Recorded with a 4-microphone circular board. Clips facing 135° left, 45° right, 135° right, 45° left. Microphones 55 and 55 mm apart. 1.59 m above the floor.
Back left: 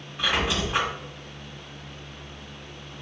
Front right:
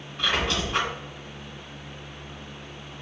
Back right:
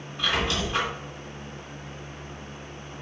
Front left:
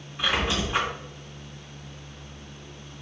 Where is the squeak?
75° left, 1.5 m.